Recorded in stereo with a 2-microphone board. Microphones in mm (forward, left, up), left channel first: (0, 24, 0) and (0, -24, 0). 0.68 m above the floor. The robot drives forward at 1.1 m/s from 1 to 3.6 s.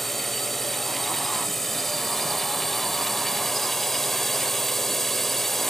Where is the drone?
5° left (ahead or behind).